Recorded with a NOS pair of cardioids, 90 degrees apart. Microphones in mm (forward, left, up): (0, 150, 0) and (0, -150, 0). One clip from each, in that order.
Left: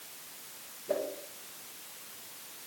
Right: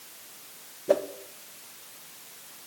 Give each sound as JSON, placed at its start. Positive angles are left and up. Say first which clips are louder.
{"t": 0.9, "sound": "a whoosh", "louder": "right 9 dB", "azimuth_deg": -65, "distance_m": 2.0}